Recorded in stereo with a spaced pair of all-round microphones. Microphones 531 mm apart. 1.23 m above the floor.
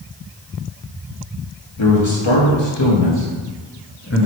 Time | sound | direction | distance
1.8 | a man speaking | 65° left (ahead or behind) | 2.0 m